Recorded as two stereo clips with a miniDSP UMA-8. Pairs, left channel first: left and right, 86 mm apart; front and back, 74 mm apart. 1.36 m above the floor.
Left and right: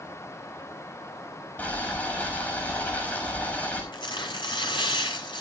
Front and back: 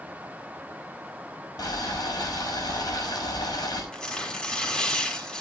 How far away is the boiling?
About 6 m.